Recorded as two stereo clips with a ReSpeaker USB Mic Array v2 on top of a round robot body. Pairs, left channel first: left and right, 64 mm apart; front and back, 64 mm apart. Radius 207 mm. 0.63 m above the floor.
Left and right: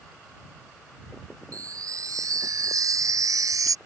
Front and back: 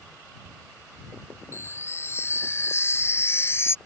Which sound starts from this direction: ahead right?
A chime, at 1.5 s.